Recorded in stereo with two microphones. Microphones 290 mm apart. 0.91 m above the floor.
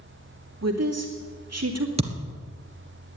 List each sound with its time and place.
0.6 s a woman speaking: 60° right (ahead or behind), 2.5 m
2.0 s a thud: 20° right (ahead or behind), 1.8 m